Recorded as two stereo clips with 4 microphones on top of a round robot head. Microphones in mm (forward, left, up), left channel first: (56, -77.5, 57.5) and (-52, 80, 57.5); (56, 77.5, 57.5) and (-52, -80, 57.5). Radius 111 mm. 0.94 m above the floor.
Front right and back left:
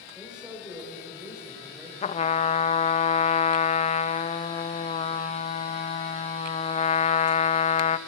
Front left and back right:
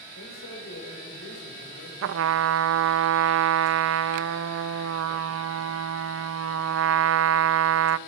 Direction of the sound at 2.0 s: 115° right.